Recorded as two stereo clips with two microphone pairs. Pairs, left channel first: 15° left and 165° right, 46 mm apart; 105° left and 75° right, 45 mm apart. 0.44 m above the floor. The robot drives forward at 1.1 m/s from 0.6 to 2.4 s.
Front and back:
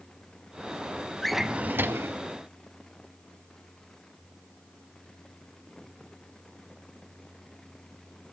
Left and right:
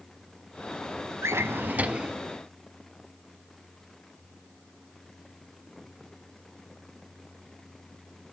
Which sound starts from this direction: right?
A drawer, at 1.2 s.